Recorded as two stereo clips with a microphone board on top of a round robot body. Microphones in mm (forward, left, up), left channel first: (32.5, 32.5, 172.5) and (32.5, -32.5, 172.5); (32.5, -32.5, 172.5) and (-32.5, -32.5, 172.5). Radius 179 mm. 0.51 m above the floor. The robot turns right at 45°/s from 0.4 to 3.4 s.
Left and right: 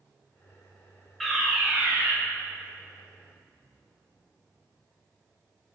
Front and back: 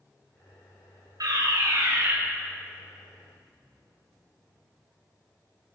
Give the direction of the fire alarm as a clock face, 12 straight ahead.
6 o'clock.